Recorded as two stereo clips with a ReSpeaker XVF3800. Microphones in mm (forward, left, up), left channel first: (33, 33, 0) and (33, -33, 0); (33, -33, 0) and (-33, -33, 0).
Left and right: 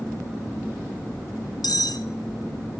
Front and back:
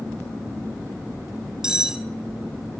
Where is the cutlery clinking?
100° left, 0.6 m.